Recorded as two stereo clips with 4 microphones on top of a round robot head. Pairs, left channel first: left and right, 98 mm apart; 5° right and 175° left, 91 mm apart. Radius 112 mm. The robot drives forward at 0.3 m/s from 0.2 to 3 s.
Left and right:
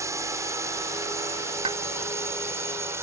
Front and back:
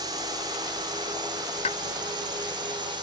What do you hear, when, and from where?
0.0 s a drone: 145° right; by 3.0 s 150° right
1.6 s a pop: 35° right; by 1.8 s 40° right